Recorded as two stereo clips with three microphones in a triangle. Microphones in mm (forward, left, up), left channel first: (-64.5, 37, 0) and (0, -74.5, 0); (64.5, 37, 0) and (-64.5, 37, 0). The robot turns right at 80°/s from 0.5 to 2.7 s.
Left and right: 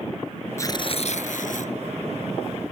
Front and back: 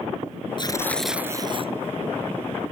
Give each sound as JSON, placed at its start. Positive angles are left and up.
{"t": 0.6, "sound": "tearing paper", "azimuth_deg": 50}